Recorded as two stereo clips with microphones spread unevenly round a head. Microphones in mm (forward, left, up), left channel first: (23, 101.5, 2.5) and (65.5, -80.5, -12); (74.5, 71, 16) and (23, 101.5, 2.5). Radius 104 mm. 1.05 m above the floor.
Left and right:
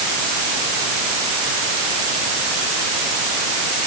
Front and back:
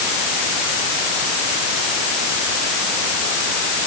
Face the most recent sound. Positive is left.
No sound to turn to.